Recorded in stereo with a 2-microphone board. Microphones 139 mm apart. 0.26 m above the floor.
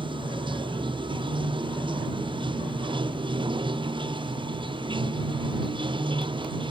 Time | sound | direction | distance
0.0 | running water | 35° right (ahead or behind) | ?